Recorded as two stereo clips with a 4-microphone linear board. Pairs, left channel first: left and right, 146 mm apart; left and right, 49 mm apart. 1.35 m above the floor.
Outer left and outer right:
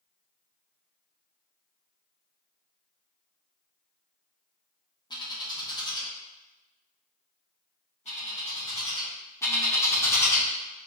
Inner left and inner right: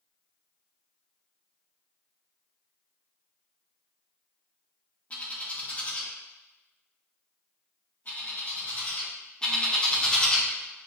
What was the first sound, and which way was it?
A bird, 30° left (ahead or behind).